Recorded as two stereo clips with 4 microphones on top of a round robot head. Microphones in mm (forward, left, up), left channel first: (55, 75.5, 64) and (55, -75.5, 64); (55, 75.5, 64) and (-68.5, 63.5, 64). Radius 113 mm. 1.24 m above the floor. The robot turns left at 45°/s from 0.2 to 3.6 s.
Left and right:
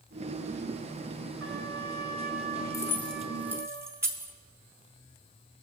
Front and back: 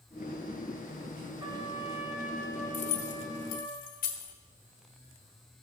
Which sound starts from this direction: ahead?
Keys jangling, at 2.7 s.